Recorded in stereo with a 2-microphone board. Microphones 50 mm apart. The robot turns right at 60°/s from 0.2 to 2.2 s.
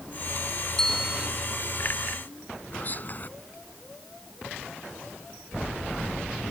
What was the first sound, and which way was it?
A bell, 165° left.